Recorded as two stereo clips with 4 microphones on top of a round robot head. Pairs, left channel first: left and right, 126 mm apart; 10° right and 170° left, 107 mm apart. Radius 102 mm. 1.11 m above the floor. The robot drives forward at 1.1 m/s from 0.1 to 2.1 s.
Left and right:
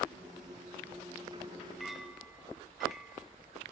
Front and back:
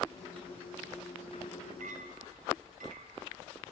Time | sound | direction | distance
1.8 | a clink | straight behind | 1.5 m